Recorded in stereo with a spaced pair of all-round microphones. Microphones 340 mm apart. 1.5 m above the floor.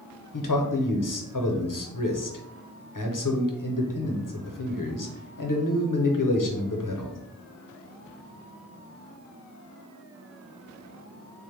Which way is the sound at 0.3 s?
65° left (ahead or behind).